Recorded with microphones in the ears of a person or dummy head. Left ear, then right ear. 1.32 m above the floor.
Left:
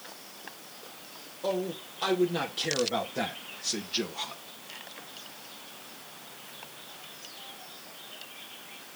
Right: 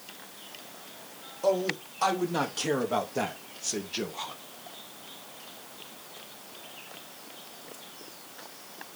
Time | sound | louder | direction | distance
1.4 | a man speaking | right 5 dB | 55° right (ahead or behind) | 3 m